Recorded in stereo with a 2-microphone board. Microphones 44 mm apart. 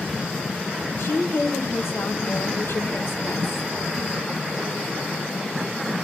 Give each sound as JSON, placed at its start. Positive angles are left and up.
{"t": 1.0, "sound": "a woman speaking", "side_deg": 80, "distance_m": 0.9}